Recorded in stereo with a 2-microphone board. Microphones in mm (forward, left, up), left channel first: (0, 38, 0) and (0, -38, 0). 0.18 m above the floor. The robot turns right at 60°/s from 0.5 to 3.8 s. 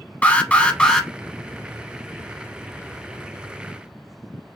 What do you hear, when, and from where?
0.2 s an alarm: 20° left (ahead or behind), 0.8 m; by 1.1 s 5° left (ahead or behind), 0.8 m